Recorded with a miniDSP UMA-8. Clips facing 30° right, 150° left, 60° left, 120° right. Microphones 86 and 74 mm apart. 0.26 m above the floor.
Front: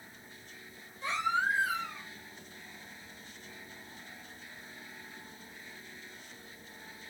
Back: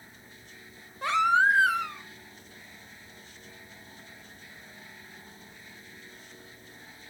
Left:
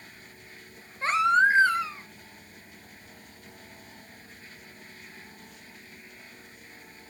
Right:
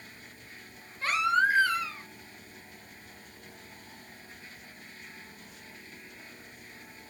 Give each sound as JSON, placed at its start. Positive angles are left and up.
{"t": 1.0, "sound": "a baby crying", "azimuth_deg": 125, "distance_m": 1.0}